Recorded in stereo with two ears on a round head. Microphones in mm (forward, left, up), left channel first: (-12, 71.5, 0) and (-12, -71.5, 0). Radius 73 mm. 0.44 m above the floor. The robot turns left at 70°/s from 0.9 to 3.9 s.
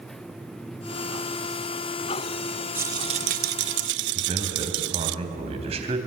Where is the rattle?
10° right, 0.5 m; by 5.2 s 95° right, 0.5 m.